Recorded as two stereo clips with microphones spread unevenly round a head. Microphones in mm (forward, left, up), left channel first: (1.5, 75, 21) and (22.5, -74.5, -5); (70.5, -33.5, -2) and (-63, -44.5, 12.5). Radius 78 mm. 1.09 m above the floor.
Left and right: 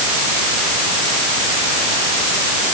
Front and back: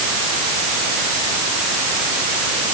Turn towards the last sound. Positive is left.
No sound to turn to.